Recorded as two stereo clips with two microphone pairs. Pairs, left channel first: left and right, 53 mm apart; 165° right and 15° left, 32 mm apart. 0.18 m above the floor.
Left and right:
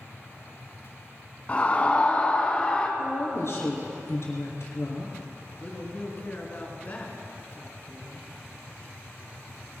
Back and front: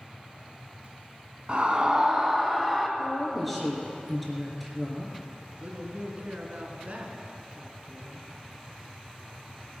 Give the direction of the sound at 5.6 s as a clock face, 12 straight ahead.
11 o'clock.